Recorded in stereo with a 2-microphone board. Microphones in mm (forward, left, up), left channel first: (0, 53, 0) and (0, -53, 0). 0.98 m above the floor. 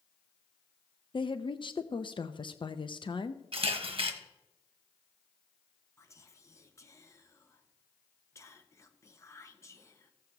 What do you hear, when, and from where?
1.1 s a woman speaking: 50° left (ahead or behind), 0.5 m
3.5 s a camera shutter: 55° right (ahead or behind), 1.2 m
6.0 s whispering: 30° left (ahead or behind), 0.9 m